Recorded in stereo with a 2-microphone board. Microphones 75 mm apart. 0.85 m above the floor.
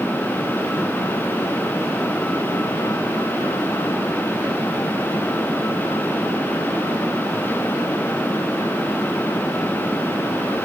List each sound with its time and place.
Only background noise.